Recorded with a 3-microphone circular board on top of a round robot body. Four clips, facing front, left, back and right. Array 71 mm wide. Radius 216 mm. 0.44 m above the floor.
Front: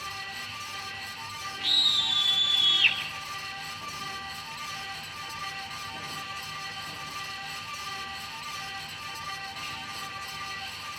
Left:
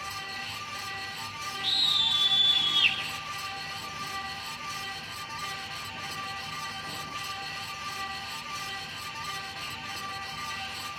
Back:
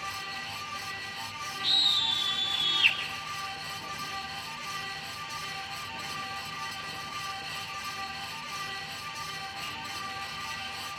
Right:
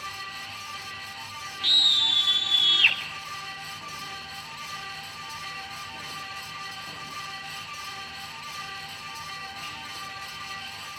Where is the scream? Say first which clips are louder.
Right 6 dB, front 1 dB; 85° right, 3 m.